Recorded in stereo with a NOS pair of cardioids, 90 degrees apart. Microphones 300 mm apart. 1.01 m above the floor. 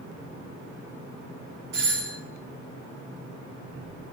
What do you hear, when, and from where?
1.7 s a doorbell: 70° right, 3 m